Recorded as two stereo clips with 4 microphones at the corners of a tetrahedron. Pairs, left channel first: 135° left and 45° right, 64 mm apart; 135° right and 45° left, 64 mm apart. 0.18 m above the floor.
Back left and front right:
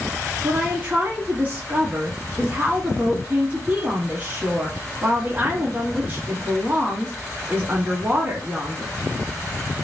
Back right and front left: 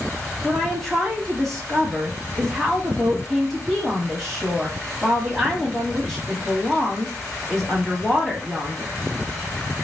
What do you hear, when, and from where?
0.4 s a woman speaking: 50° right, 1.1 m